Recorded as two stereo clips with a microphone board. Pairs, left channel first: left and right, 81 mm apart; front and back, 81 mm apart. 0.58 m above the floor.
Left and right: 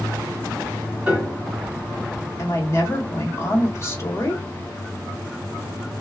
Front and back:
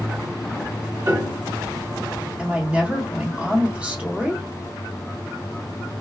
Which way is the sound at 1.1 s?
155° right.